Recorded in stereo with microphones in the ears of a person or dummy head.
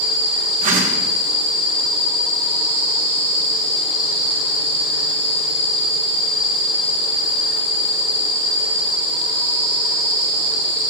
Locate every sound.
0.6 s a whoosh: 45° right (ahead or behind), 1.1 m